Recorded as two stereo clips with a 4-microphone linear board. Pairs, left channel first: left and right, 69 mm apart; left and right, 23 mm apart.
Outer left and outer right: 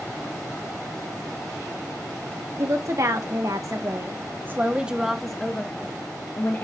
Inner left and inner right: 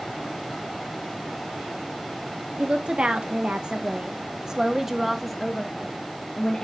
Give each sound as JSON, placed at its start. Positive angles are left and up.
{"t": 2.6, "sound": "a woman speaking", "side_deg": -60, "distance_m": 1.6}